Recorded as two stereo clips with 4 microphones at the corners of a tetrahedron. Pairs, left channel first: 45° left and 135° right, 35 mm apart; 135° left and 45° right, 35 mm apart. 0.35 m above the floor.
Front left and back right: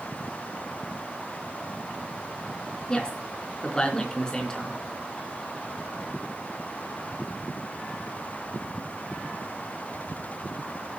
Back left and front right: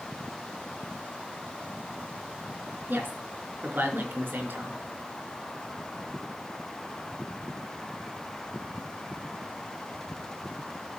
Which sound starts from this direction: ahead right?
A woman speaking, at 2.9 s.